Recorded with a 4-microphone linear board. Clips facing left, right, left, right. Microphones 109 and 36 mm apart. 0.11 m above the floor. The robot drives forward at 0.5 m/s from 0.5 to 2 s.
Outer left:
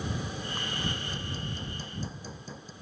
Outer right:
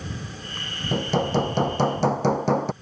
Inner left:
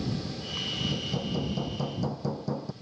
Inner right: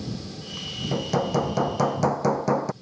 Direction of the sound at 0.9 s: 75° right (ahead or behind).